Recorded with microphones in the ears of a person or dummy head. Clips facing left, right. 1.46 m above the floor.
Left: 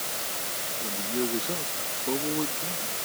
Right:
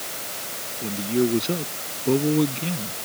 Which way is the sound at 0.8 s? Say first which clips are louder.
Right 8 dB; 30° right (ahead or behind).